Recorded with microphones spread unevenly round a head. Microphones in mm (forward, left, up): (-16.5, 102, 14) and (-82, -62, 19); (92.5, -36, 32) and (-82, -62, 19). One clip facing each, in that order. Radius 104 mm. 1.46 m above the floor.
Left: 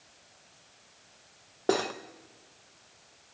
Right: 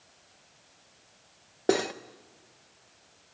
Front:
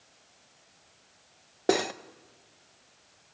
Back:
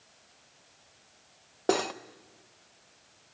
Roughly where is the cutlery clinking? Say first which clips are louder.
Right 2 dB, front 2 dB; ahead right.